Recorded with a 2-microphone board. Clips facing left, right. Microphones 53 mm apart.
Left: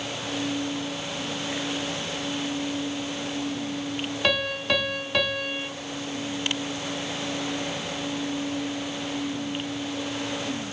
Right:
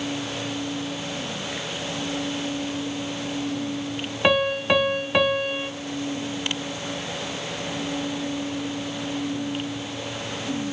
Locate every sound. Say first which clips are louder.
4.2 s a piano: right 6 dB; 20° right (ahead or behind), 0.9 m